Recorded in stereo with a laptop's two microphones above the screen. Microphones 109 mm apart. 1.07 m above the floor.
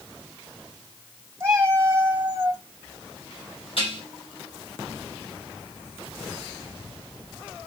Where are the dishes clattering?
60° left (ahead or behind), 7.5 m.